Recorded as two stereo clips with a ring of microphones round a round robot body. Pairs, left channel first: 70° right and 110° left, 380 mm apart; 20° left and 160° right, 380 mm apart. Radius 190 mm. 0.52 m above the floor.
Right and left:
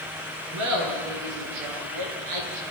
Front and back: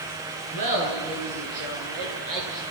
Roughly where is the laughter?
Behind.